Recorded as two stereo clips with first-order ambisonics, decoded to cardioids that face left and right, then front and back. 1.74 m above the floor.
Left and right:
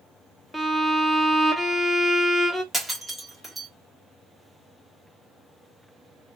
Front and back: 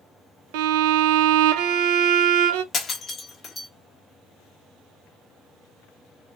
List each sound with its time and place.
0.5 s a violin: straight behind, 0.5 m
2.7 s breaking glass: straight ahead, 1.0 m